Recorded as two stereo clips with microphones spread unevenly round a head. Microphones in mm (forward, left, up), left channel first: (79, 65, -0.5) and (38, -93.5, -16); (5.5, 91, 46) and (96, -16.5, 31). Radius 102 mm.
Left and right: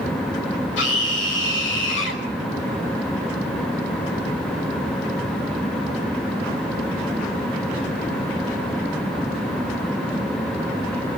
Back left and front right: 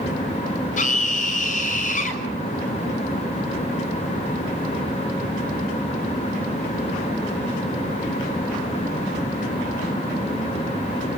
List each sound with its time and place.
0.8 s a scream: 110° left, 5.5 m